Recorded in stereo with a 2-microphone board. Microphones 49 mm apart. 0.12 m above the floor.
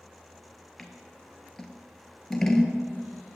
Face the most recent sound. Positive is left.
turn(degrees=5)  # may be behind; listen again after turning